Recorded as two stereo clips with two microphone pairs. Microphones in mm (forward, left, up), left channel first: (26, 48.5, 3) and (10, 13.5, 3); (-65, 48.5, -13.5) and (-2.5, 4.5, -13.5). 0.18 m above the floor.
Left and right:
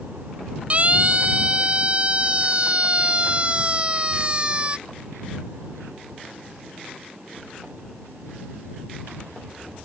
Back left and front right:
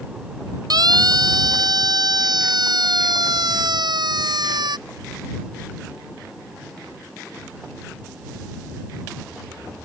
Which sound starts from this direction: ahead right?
A siren, at 0.7 s.